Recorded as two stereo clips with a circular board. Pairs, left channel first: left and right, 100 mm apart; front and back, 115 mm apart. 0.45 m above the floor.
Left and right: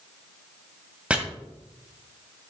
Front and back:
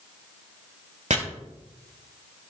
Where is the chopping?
170° right, 1.4 m.